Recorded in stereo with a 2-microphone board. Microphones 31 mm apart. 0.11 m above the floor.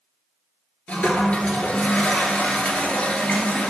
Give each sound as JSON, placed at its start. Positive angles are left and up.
{"t": 0.9, "sound": "a toilet flushing", "side_deg": 40, "distance_m": 1.3}